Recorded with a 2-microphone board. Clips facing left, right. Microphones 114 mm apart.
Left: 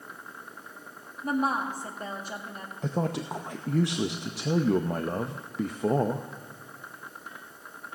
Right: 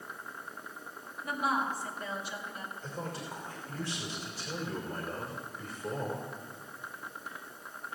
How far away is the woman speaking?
About 1.9 m.